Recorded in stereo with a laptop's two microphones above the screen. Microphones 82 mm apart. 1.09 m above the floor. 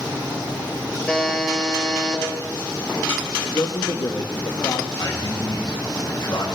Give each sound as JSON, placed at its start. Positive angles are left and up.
{"t": 1.1, "sound": "a buzzer", "side_deg": 10, "distance_m": 4.0}
{"t": 3.4, "sound": "a man speaking", "side_deg": 60, "distance_m": 1.2}
{"t": 5.0, "sound": "a man speaking", "side_deg": 55, "distance_m": 4.5}